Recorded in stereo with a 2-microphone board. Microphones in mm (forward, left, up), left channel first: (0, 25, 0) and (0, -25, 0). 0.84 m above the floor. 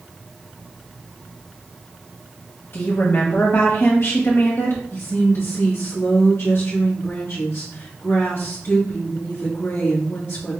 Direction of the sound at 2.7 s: 50° left (ahead or behind).